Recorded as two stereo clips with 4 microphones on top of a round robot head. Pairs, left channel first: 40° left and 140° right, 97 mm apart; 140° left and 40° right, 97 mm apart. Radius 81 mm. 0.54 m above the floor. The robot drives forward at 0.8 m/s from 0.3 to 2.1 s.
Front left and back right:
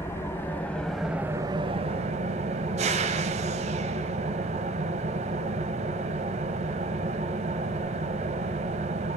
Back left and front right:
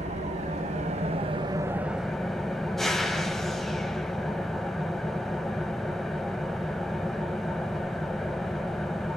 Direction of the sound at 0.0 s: 30° right.